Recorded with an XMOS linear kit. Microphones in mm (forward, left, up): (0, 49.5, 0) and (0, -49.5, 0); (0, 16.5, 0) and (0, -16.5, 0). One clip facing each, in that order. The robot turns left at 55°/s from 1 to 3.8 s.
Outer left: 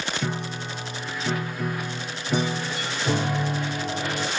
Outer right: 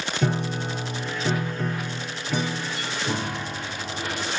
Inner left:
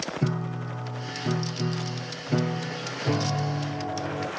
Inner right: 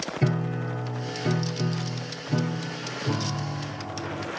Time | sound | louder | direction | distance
0.2 | a piano | outer right 4 dB, inner right 5 dB | 125° right | 1.2 m